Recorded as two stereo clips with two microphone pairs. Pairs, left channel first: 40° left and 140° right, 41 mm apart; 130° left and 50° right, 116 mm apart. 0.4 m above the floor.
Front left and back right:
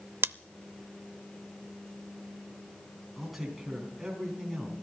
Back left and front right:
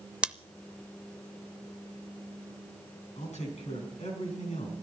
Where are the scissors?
130° right, 0.5 m.